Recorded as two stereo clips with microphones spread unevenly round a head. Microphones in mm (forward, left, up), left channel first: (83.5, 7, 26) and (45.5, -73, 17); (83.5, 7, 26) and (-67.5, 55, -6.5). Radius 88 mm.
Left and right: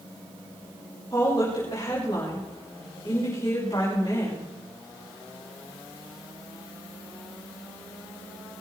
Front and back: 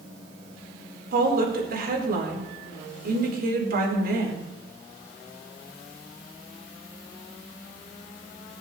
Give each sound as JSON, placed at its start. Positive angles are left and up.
{"t": 1.1, "sound": "a woman speaking", "azimuth_deg": 130, "distance_m": 4.5}